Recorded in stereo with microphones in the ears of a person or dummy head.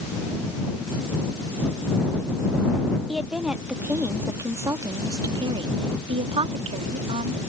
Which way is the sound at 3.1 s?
5° left (ahead or behind).